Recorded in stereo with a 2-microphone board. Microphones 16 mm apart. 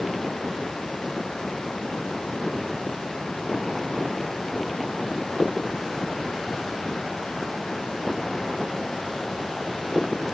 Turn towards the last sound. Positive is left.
No sound to turn to.